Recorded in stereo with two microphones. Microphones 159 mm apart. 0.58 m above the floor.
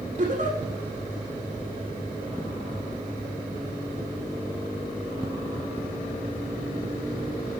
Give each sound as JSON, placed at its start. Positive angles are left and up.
{"t": 0.2, "sound": "a giggle", "side_deg": -50, "distance_m": 6.0}